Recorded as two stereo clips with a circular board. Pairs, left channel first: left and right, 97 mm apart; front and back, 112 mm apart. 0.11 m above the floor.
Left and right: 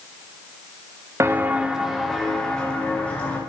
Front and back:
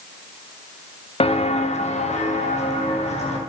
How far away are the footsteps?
About 1.1 m.